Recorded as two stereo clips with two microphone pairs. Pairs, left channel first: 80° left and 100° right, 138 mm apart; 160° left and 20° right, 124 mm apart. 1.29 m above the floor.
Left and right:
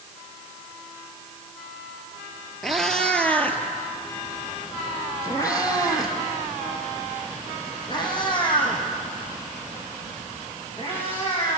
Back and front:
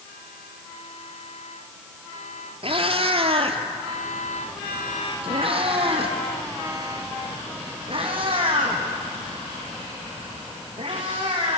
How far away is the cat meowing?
About 1.9 m.